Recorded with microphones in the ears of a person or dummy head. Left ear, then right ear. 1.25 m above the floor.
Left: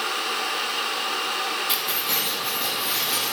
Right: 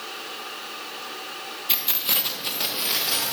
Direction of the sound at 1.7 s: Centre (ahead or behind).